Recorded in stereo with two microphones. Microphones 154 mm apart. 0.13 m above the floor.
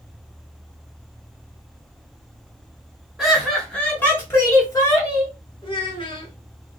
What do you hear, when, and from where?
3.2 s laughter: 5° right (ahead or behind), 1.1 m; by 5.3 s 25° left (ahead or behind), 1.8 m
5.6 s a child speaking: 35° left (ahead or behind), 1.1 m